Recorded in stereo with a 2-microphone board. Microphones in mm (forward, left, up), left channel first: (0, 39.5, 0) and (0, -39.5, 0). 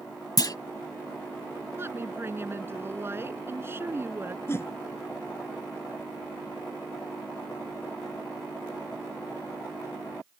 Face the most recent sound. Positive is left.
turn(degrees=30)  # may be behind; listen again after turning